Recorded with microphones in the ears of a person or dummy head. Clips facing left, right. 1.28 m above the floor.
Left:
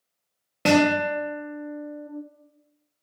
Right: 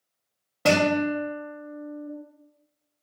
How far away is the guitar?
About 0.7 m.